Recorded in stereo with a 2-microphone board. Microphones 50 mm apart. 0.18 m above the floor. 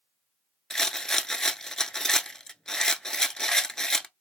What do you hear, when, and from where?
0.7 s a rattle: 10° left (ahead or behind), 0.6 m